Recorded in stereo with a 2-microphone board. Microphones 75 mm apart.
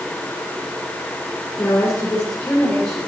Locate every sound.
1.6 s a woman speaking: 30° left (ahead or behind), 9 m; by 3.1 s 25° left (ahead or behind), 8.5 m